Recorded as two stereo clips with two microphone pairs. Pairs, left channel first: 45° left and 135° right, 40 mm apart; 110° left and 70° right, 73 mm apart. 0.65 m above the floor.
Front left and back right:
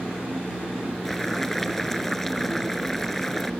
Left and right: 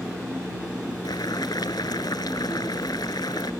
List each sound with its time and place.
1.1 s boiling: 130° left